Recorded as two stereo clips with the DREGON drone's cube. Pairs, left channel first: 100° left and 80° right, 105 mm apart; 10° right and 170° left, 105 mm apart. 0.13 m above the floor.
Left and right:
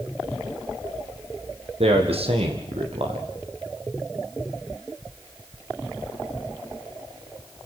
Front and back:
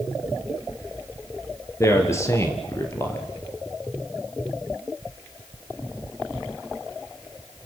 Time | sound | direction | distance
1.8 | a man speaking | 75° right | 4.5 m